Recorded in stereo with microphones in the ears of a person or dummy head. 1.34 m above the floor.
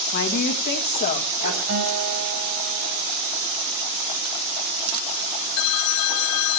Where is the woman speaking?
60° left (ahead or behind), 1.5 m; by 1.6 s 45° left (ahead or behind), 2.5 m.